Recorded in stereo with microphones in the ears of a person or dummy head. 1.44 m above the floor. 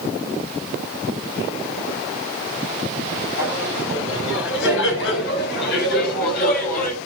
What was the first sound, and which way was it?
Laughter, 80° left.